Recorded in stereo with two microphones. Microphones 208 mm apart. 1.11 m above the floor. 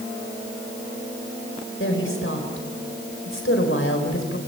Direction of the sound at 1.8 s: 80° left.